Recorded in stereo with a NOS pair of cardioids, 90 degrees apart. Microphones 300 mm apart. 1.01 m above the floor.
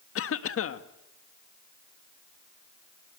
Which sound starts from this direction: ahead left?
A cough, at 0.1 s.